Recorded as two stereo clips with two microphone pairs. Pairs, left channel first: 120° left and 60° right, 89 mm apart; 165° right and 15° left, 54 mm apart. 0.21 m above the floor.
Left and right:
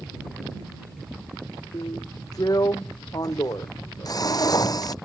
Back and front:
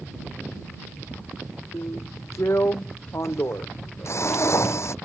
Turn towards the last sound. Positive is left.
turn(degrees=165)